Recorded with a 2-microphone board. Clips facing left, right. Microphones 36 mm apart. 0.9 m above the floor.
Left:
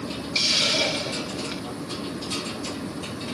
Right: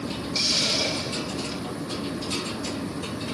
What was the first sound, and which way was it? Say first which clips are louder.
A hiss: left 3 dB; 45° left (ahead or behind).